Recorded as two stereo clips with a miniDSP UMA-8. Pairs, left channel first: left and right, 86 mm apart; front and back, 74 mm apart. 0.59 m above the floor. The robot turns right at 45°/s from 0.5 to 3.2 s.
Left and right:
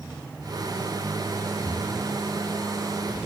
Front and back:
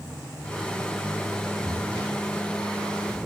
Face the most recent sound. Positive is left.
turn(degrees=-110)